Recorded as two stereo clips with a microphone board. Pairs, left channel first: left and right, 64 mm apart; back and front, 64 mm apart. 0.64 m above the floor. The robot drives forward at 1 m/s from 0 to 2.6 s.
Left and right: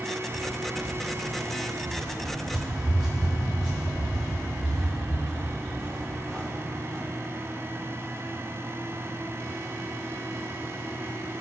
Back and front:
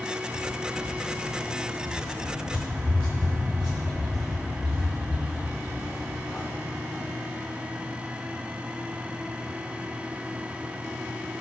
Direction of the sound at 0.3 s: 150° right.